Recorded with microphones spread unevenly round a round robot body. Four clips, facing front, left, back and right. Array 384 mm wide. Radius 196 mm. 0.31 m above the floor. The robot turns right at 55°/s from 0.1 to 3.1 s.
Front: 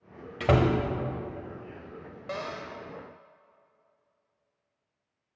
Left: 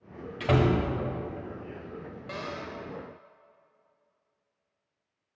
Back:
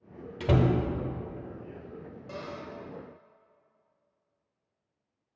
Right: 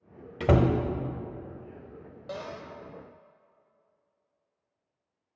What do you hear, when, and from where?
0.4 s a door slam: 70° right, 0.9 m; by 0.8 s 50° right, 0.9 m
2.3 s a cupboard door: 45° right, 1.1 m; by 2.7 s 25° right, 1.1 m